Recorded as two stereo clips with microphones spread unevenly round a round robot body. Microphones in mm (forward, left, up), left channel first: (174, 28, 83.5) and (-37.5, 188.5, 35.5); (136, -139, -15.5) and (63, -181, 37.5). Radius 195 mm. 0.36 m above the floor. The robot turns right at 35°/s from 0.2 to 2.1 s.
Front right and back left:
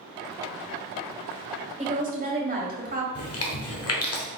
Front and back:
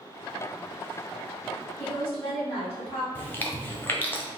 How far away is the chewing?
About 1.0 m.